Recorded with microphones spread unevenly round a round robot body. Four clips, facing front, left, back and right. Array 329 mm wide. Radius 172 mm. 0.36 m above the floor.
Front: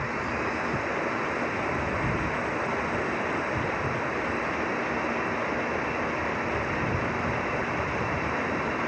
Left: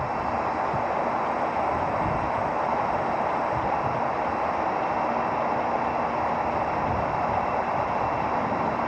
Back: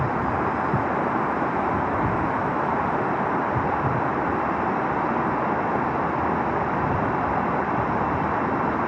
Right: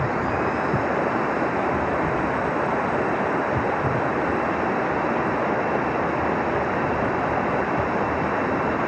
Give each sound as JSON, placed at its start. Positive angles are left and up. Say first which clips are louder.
{"t": 0.0, "sound": "running water", "louder": "right 3 dB, back 6 dB", "azimuth_deg": -150}